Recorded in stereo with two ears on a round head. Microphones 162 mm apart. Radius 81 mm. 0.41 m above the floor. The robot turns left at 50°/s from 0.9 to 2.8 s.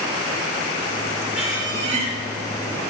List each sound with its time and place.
1.3 s a squeak: 10° right, 4.5 m; by 2.1 s 50° right, 4.5 m